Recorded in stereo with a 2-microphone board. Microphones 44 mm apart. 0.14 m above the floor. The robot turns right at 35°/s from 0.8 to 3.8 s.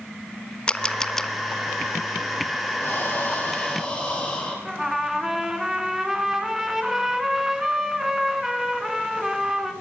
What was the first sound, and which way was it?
A camera shutter, 20° left (ahead or behind).